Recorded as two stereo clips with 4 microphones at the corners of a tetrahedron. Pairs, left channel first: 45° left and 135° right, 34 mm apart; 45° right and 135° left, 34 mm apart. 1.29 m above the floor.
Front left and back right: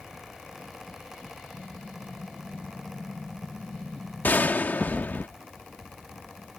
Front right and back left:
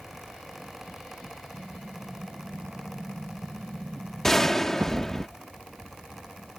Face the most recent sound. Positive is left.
turn(degrees=35)